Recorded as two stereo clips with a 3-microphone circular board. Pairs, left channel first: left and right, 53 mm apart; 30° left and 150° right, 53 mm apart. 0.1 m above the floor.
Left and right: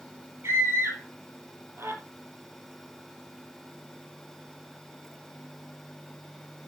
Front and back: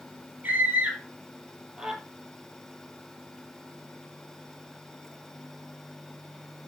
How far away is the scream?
About 2.5 m.